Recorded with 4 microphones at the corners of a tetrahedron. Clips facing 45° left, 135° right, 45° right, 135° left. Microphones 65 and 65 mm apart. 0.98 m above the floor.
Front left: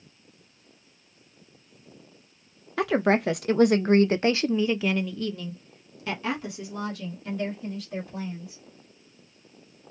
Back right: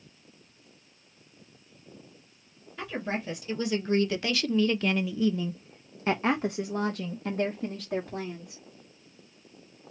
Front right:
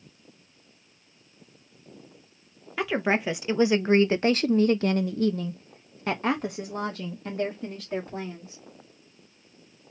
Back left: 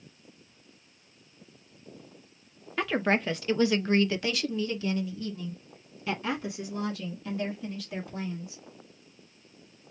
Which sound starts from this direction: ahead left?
A woman speaking, at 2.8 s.